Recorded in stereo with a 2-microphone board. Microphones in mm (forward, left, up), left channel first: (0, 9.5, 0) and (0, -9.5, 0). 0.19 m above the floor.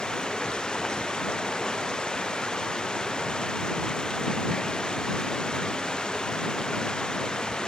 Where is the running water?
45° left (ahead or behind).